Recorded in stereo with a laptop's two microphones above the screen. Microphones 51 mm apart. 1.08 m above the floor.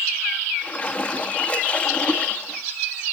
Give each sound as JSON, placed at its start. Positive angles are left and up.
{"t": 0.6, "sound": "a splash", "side_deg": 20, "distance_m": 2.5}